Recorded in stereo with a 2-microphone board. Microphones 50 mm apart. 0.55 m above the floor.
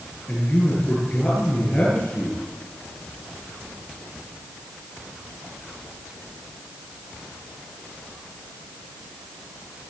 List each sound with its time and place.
0.3 s a man speaking: 10° left (ahead or behind), 9 m